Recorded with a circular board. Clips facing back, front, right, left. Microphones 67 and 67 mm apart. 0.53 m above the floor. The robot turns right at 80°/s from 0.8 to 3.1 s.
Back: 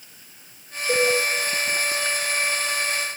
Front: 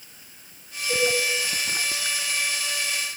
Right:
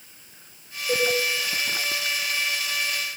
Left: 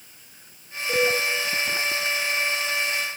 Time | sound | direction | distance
0.9 | a cowbell | 155° right | 1.0 m